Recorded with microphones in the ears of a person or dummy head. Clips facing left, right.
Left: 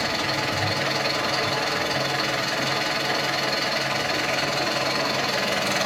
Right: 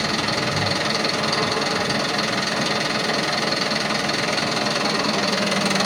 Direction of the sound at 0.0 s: 65° right (ahead or behind).